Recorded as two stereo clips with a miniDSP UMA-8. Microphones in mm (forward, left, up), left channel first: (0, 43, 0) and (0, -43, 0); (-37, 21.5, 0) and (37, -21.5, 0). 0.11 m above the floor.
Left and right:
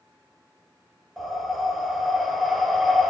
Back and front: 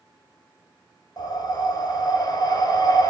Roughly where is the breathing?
Behind.